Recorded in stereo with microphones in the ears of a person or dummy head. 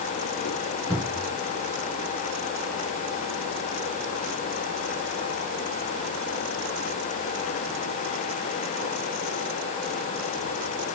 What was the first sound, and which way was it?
A cupboard door, 20° left (ahead or behind).